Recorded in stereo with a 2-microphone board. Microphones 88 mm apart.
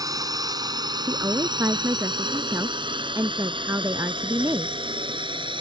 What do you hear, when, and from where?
0.0 s a drone: 45° right (ahead or behind); by 5.6 s 70° right (ahead or behind)
1.1 s a woman speaking: 35° right (ahead or behind)